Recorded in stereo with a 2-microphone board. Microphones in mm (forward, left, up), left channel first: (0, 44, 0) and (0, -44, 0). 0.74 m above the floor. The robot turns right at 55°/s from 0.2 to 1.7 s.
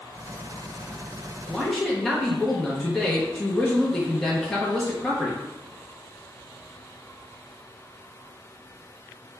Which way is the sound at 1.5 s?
Centre (ahead or behind).